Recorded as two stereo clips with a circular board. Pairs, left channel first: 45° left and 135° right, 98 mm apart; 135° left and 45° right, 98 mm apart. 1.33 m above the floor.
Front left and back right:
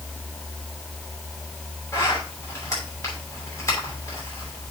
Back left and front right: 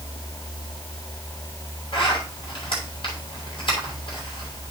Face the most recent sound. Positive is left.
turn(degrees=100)